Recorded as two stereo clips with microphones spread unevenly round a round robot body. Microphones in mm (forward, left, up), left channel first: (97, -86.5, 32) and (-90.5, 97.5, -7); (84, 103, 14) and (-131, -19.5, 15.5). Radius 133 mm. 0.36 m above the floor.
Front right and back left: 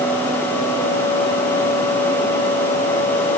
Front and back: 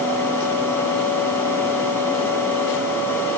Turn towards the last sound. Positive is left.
No sound to turn to.